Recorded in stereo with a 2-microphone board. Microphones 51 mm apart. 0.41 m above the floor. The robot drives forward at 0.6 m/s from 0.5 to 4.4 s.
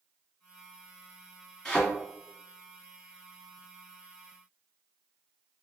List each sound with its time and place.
1.6 s a thud: 10° left (ahead or behind), 1.5 m